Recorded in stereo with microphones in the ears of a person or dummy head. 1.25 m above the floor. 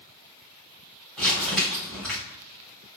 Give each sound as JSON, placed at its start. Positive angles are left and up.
{"t": 1.2, "sound": "crumpling", "side_deg": 10, "distance_m": 1.5}